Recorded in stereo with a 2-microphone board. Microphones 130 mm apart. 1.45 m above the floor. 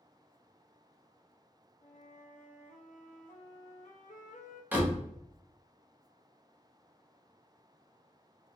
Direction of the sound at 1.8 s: 80° left.